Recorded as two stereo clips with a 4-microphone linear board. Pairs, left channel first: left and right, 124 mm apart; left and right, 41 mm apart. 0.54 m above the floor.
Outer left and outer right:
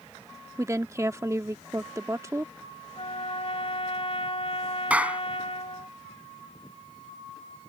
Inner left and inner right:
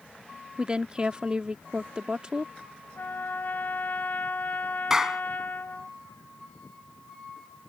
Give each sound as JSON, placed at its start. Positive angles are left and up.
{"t": 0.6, "sound": "a woman speaking", "side_deg": -25}
{"t": 3.0, "sound": "a trumpet", "side_deg": 50}
{"t": 4.9, "sound": "a clap", "side_deg": -10}